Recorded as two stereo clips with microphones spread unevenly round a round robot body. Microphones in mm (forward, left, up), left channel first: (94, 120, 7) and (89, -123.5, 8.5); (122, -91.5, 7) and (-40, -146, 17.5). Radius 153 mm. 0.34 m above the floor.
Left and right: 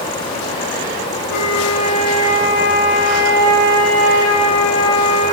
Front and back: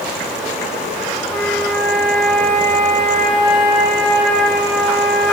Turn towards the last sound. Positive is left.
turn(degrees=105)